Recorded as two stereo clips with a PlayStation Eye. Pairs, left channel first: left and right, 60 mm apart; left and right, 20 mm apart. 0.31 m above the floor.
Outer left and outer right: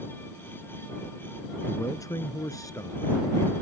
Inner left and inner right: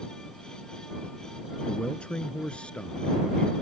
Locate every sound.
1.7 s a man speaking: 70° left (ahead or behind); by 3.5 s 75° left (ahead or behind)